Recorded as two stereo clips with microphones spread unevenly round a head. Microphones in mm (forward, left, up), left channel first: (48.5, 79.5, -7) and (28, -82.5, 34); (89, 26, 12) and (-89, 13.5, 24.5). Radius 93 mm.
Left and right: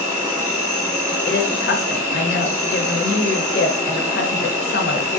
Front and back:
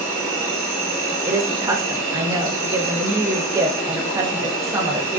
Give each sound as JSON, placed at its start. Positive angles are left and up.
{"t": 0.0, "sound": "an insect", "azimuth_deg": -60, "distance_m": 1.8}
{"t": 1.3, "sound": "a woman speaking", "azimuth_deg": 120, "distance_m": 0.5}